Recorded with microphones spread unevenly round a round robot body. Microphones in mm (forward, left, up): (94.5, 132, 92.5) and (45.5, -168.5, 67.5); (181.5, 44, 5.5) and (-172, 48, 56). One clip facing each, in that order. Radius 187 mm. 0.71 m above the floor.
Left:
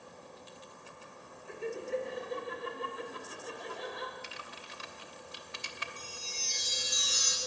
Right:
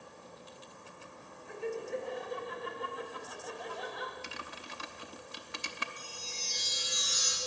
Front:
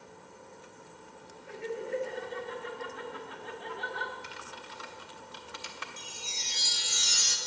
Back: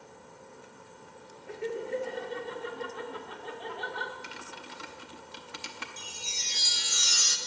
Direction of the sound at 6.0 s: 140° left.